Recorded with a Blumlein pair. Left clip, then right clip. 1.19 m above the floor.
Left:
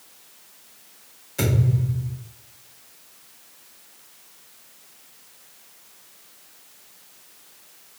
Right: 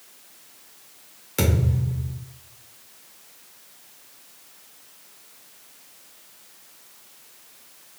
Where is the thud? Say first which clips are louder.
Even; 60° right, 1.7 m.